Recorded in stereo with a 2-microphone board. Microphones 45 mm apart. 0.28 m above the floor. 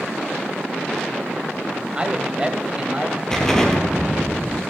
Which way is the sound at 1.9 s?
25° right (ahead or behind).